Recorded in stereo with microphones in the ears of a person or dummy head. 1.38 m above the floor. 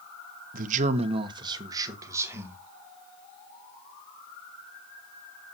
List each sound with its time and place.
0.5 s a man speaking: 50° right (ahead or behind), 0.8 m; by 2.6 s 15° right (ahead or behind), 2.0 m